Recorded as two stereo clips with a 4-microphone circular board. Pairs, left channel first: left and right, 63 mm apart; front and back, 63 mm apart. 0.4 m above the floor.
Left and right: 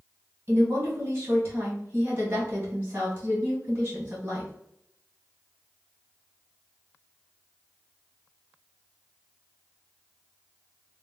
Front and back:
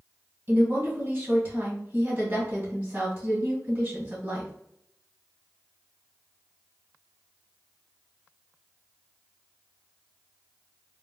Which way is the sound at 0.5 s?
145° right.